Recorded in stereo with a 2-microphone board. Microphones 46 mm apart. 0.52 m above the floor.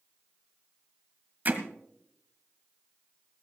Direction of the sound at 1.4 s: 40° right (ahead or behind).